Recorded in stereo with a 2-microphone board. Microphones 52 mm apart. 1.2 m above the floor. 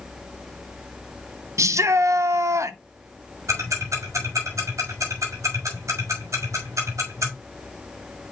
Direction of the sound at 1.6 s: 75° right (ahead or behind).